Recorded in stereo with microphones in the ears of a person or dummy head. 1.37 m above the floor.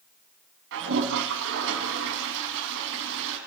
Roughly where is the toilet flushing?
Right.